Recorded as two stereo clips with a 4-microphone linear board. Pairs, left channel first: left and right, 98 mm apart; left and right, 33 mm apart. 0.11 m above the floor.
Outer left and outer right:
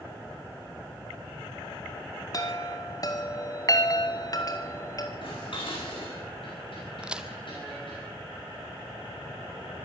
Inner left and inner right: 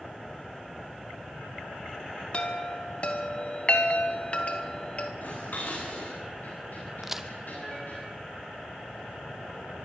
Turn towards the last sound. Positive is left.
turn(degrees=-10)  # may be behind; listen again after turning